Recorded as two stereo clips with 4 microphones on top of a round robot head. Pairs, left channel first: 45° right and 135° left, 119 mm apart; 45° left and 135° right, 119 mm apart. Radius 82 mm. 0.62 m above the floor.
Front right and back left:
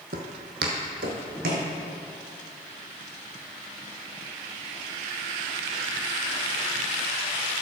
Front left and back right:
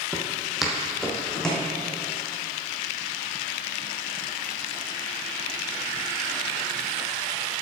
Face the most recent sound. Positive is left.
turn(degrees=125)